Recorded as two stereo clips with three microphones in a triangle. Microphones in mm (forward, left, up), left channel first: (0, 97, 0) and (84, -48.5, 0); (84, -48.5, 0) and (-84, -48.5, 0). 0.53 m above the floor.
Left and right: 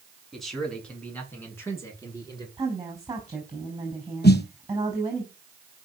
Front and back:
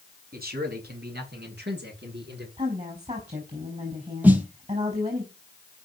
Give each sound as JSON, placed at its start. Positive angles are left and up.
{"t": 0.3, "sound": "a man speaking", "azimuth_deg": -150, "distance_m": 6.0}
{"t": 2.6, "sound": "a woman speaking", "azimuth_deg": -130, "distance_m": 5.0}
{"t": 4.2, "sound": "a snare drum", "azimuth_deg": 100, "distance_m": 3.0}